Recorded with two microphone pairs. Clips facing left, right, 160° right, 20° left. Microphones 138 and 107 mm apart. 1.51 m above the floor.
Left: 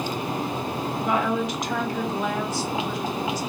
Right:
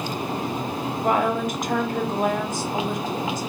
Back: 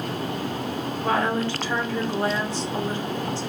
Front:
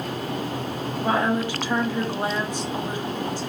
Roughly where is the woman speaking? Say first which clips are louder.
Right 3 dB, front 1 dB; ahead right.